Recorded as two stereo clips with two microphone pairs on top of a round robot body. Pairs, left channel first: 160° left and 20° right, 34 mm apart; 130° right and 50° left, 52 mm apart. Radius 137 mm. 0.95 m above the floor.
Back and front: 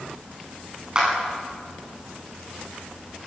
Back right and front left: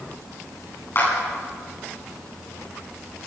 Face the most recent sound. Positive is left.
turn(degrees=-85)